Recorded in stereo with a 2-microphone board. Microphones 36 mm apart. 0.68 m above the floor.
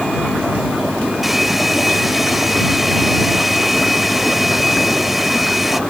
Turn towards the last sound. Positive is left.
turn(degrees=-5)  # may be behind; listen again after turning